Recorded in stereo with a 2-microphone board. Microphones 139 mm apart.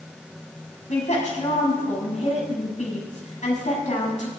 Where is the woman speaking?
60° left (ahead or behind), 7 m.